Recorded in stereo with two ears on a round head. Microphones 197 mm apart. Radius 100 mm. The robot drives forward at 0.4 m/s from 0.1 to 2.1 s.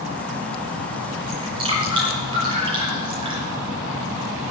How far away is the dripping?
About 7 m.